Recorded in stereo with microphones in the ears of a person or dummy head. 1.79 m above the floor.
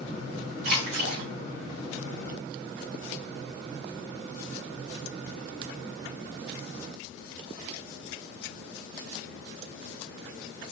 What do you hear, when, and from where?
0.6 s a splash: 65° right (ahead or behind), 1.3 m